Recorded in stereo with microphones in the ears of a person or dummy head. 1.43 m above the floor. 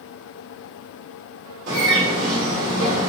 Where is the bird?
75° right (ahead or behind), 1.7 m.